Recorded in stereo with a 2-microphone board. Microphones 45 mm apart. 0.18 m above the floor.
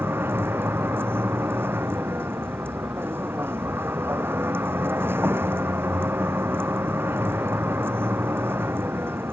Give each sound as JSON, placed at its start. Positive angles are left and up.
{"t": 0.0, "sound": "a vehicle", "side_deg": -55}